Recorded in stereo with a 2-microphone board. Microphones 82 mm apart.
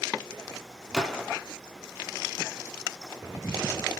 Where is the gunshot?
Centre (ahead or behind), 0.6 m.